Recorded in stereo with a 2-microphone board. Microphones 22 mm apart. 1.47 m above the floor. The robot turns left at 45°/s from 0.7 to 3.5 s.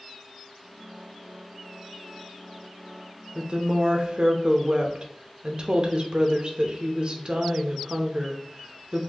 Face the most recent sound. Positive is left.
turn(degrees=-40)  # may be behind; listen again after turning